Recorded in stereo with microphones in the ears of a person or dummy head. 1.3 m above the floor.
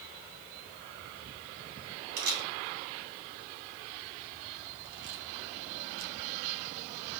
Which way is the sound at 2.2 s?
60° right (ahead or behind).